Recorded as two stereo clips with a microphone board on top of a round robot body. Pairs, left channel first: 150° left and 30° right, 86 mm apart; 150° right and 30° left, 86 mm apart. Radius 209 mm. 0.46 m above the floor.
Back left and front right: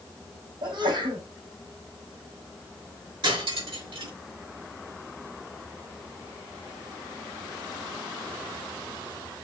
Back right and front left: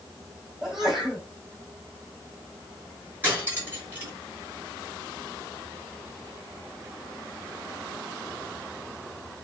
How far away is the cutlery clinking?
About 5 m.